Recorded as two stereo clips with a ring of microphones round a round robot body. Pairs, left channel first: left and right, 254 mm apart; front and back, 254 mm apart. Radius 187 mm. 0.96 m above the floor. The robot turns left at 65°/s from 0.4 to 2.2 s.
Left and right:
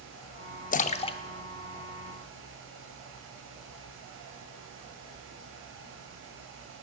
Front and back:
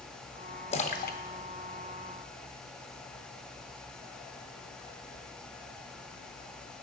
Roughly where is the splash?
Ahead left.